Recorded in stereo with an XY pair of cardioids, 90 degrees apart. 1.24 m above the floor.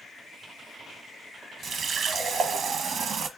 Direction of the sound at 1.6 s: 60° right.